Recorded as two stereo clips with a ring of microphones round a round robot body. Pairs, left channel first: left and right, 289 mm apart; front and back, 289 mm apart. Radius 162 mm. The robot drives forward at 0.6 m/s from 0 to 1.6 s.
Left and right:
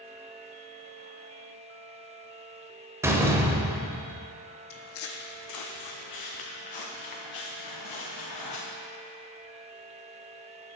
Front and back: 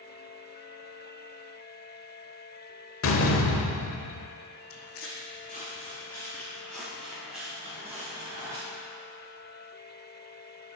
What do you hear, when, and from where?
3.0 s a door slam: 10° right, 0.9 m
4.7 s footsteps: 35° left, 0.8 m; by 8.6 s 100° left, 3 m